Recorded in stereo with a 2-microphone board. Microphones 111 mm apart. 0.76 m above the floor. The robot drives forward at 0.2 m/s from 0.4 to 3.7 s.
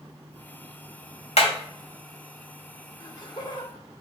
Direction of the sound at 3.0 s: 40° left (ahead or behind).